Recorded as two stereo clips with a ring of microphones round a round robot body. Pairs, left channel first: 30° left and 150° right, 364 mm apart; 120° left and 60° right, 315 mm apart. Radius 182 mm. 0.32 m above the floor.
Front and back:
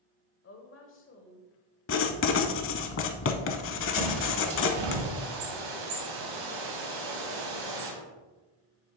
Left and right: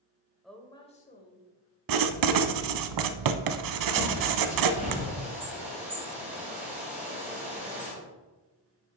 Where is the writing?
30° right, 0.7 m.